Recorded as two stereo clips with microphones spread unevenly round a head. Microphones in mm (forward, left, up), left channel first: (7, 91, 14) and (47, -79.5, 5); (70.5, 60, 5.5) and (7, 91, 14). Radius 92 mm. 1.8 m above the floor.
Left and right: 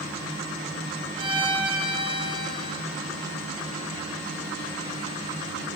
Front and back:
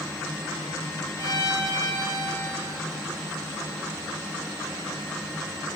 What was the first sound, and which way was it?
A violin, 140° right.